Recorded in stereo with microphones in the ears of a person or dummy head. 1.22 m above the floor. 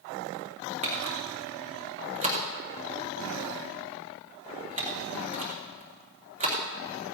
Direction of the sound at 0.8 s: 40° right (ahead or behind).